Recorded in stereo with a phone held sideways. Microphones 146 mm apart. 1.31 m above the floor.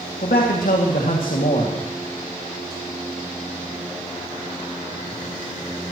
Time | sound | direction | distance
0.2 | a man speaking | 80° left | 2 m